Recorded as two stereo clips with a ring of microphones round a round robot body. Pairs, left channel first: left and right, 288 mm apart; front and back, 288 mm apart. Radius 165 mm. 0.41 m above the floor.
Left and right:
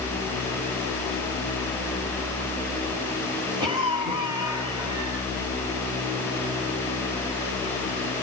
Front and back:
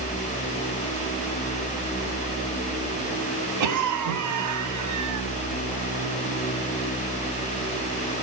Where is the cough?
165° right, 3 m.